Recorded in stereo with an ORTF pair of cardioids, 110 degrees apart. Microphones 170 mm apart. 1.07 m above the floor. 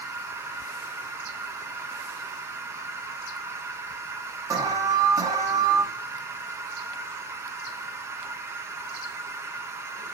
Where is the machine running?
15° right, 0.7 m.